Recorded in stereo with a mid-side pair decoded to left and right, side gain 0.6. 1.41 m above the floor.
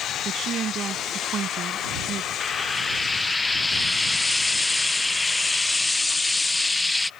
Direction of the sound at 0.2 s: 40° right.